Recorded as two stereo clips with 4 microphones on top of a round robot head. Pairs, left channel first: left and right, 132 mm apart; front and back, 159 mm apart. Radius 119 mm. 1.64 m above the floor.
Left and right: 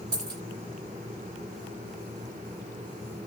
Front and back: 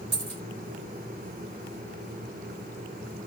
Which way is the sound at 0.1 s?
135° right.